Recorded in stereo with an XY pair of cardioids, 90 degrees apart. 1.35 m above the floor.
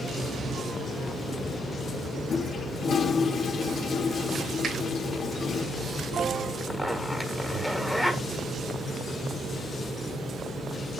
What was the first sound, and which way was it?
A toilet flushing, 60° left.